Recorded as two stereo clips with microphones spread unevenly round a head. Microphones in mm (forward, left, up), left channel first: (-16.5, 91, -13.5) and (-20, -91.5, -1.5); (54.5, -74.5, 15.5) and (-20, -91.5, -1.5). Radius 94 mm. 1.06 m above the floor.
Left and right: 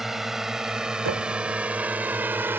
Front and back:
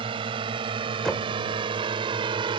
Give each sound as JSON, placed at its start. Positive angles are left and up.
{"t": 0.0, "sound": "a drone", "azimuth_deg": 180}
{"t": 1.1, "sound": "knocking", "azimuth_deg": -70}